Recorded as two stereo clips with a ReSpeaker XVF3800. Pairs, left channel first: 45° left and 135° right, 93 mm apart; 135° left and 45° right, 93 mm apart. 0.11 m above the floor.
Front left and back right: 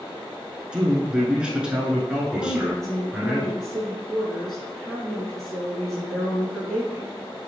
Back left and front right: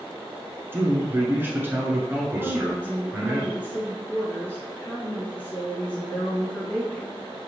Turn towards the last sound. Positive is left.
turn(degrees=125)